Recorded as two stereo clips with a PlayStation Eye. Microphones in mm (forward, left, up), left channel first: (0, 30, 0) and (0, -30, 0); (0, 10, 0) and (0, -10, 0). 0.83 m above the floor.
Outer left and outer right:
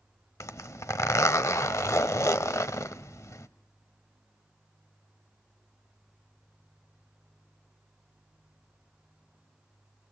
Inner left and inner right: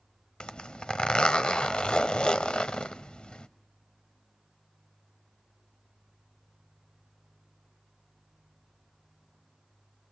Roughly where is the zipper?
Left.